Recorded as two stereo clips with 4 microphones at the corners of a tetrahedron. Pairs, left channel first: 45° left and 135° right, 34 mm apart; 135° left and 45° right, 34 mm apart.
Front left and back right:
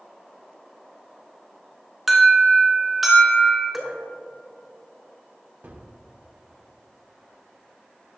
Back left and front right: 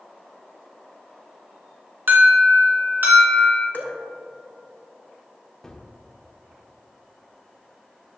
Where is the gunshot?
150° right, 0.8 m.